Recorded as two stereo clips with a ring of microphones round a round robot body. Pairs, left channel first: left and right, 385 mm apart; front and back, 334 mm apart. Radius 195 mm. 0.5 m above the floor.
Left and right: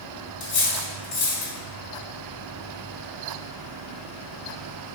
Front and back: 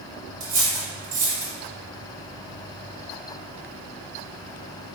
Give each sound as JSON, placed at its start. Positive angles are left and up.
{"t": 0.4, "sound": "cutlery clinking", "azimuth_deg": 150, "distance_m": 1.4}